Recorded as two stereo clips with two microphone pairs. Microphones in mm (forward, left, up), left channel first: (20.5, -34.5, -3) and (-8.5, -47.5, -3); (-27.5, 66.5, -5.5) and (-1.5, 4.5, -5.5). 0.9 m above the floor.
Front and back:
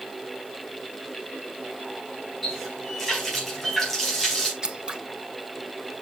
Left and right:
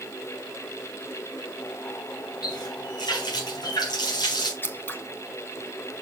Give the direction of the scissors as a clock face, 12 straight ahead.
7 o'clock.